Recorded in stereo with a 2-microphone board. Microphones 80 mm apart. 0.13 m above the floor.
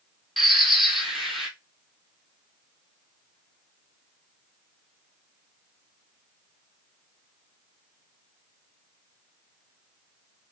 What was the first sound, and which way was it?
A bird, centre (ahead or behind).